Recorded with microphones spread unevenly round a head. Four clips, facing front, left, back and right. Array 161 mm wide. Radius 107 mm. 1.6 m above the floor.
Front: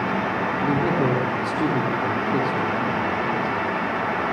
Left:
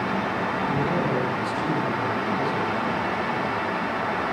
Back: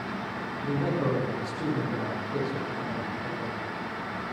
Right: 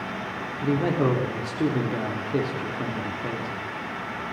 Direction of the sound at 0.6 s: 45° right.